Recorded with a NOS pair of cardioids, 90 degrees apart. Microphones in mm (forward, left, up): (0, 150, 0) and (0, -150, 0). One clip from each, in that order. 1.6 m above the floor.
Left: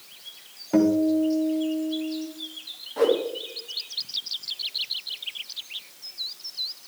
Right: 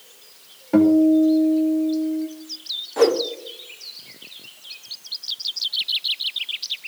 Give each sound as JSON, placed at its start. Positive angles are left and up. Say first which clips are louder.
{"t": 0.7, "sound": "a guitar", "louder": "right 6 dB", "azimuth_deg": -15, "distance_m": 2.5}
{"t": 3.0, "sound": "a whoosh", "louder": "right 4 dB", "azimuth_deg": -35, "distance_m": 2.0}